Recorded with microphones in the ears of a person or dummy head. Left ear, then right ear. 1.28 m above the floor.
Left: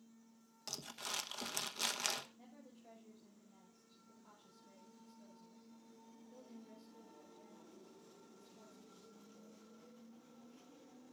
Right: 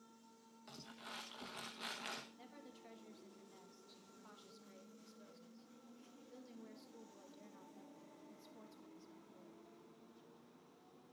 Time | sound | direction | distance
0.7 | crumpling | 90° left | 1.2 m
2.4 | a woman speaking | 45° right (ahead or behind) | 1.5 m